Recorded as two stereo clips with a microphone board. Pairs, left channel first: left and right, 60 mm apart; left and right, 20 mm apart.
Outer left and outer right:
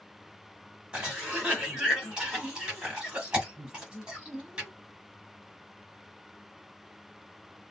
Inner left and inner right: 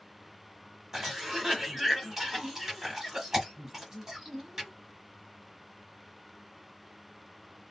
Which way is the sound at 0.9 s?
15° right (ahead or behind).